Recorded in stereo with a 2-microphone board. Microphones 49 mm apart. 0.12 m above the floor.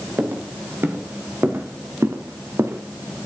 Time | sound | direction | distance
0.2 | footsteps | 45° right (ahead or behind) | 4.5 m